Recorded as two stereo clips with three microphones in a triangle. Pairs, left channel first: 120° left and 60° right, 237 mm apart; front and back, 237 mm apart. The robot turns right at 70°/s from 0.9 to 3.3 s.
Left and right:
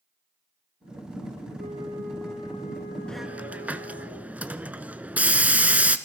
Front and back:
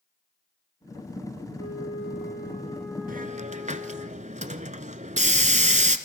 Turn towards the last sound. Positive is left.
turn(degrees=-140)